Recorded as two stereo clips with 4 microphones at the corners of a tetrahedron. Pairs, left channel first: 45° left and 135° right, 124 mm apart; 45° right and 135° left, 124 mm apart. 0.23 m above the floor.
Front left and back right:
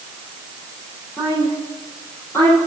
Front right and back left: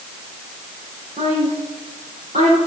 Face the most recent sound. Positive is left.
turn(degrees=115)